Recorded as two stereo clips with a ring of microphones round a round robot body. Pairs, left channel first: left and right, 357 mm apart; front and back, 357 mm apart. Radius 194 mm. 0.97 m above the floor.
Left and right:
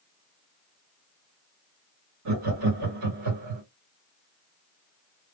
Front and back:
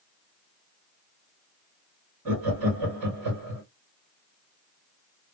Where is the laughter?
135° right, 2.0 m.